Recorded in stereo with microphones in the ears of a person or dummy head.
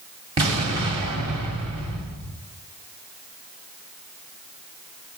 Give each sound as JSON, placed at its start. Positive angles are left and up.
{"t": 0.4, "sound": "an explosion", "side_deg": -25, "distance_m": 1.6}